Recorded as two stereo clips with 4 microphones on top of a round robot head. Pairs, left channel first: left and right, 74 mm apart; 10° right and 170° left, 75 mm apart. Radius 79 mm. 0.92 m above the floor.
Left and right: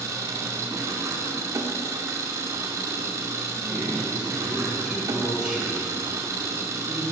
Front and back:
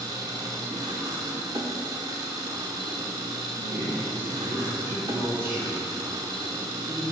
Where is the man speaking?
Straight behind, 3 m.